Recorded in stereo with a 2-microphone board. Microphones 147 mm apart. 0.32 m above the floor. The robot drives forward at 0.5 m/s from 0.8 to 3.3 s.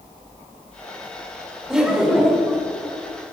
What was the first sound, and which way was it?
Laughter, 5° right (ahead or behind).